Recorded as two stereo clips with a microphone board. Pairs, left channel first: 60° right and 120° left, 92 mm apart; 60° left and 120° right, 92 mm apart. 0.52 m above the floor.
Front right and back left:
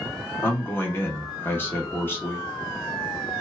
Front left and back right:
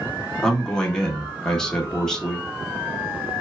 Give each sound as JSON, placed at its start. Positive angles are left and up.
{"t": 0.4, "sound": "a man speaking", "azimuth_deg": -15, "distance_m": 0.7}